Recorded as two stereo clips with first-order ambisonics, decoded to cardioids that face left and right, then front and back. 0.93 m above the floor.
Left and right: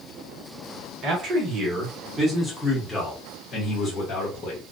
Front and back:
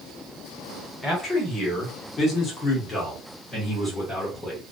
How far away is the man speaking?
About 1.2 m.